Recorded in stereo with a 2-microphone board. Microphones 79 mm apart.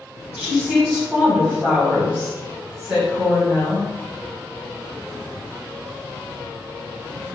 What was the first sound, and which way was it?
A woman speaking, 10° right (ahead or behind).